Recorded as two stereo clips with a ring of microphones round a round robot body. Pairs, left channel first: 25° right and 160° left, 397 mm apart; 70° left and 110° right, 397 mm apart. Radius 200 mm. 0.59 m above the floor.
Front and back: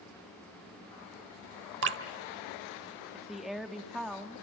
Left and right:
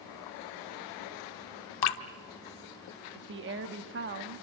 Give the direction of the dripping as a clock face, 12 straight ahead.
9 o'clock.